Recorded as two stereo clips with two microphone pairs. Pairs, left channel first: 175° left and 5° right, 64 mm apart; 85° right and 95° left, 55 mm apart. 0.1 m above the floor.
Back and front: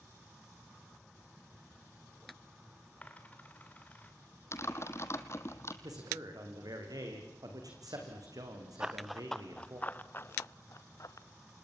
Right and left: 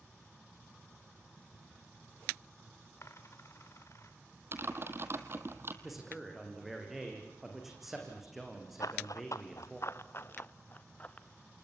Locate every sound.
3.0 s a dropped coin: 115° right, 2.5 m
4.5 s typing on a keyboard: 135° left, 1.5 m
5.8 s a man speaking: 10° left, 5.5 m
8.8 s running footsteps: 80° right, 1.1 m; by 11.3 s 150° right, 1.7 m